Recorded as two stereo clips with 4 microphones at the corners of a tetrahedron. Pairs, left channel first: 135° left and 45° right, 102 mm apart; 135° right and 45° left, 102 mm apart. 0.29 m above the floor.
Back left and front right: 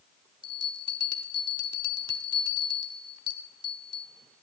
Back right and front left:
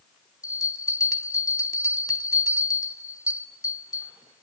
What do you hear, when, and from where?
0.4 s a bell: 85° right, 0.7 m